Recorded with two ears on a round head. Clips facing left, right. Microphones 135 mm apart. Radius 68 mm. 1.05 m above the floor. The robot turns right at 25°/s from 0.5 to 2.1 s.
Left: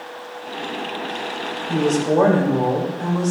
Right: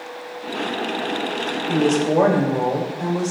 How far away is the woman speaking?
About 2 m.